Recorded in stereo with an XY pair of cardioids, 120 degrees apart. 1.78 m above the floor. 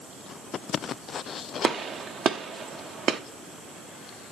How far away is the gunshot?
About 0.9 m.